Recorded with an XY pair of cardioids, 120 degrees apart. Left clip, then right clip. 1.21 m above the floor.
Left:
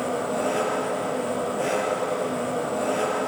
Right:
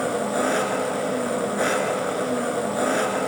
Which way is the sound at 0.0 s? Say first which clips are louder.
Right 2 dB; 65° right.